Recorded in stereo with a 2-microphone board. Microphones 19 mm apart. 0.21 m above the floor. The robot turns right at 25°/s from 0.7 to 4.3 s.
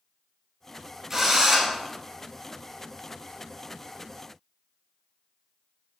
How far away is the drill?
About 2 m.